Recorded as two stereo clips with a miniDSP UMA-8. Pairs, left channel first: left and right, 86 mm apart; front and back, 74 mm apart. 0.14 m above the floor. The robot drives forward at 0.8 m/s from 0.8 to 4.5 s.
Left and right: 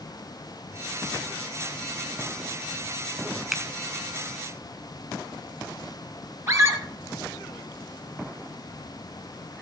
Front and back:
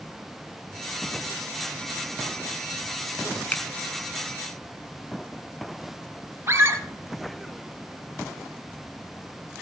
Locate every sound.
3.5 s a finger snap: 10° right, 0.9 m; by 3.6 s 15° right, 0.8 m
6.5 s a scream: 140° right, 2.5 m